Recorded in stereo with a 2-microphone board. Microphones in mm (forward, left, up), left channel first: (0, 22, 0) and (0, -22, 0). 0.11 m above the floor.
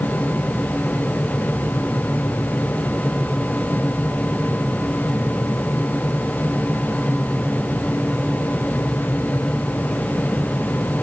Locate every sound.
Only background noise.